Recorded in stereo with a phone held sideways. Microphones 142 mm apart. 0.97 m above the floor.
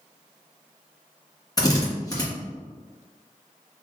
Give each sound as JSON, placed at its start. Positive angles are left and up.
{"t": 1.6, "sound": "a drill", "side_deg": 25, "distance_m": 1.5}